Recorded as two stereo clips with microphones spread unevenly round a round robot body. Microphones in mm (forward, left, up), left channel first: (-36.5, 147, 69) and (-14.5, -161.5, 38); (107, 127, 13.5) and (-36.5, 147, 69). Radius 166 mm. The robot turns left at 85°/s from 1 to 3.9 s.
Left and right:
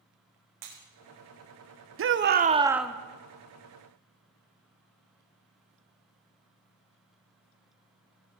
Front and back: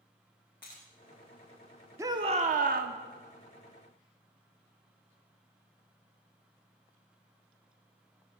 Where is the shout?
100° right, 0.8 m; by 3.0 s straight behind, 0.8 m.